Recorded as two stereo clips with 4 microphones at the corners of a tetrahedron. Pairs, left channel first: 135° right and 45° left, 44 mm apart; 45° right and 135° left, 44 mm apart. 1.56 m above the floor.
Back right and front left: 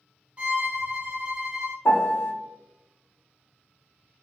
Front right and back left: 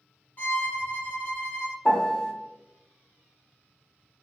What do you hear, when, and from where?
0.4 s a violin: 5° right, 1.0 m
1.9 s a piano: 115° right, 0.5 m